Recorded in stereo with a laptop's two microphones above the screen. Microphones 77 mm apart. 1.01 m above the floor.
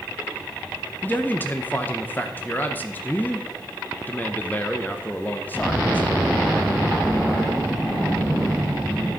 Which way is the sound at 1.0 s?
25° left (ahead or behind).